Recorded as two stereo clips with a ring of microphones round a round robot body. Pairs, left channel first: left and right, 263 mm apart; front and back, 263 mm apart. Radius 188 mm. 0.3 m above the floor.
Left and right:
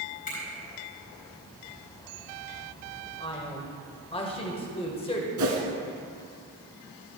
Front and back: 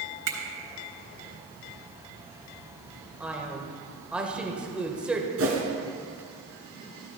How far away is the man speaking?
About 1.3 m.